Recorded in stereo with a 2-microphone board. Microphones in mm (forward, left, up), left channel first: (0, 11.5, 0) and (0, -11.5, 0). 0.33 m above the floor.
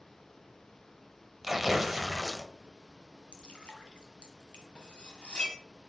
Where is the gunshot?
No gunshot in this recording.